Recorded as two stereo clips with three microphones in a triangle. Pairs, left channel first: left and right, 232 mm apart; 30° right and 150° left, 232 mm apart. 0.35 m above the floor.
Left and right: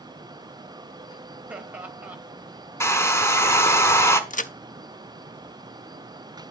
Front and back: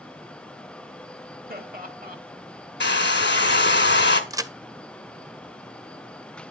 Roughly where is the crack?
Left.